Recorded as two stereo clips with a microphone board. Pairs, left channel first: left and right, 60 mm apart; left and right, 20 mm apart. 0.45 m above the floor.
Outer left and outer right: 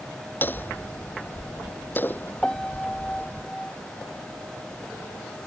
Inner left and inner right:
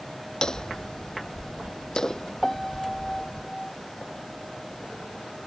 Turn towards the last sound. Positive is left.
turn(degrees=15)  # may be behind; listen again after turning